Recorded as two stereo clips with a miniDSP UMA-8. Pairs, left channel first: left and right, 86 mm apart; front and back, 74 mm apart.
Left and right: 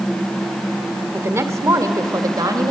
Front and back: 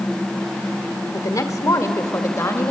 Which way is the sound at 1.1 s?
35° right.